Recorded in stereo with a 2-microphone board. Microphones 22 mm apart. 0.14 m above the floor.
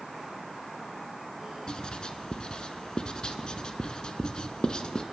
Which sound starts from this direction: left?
Writing, at 1.7 s.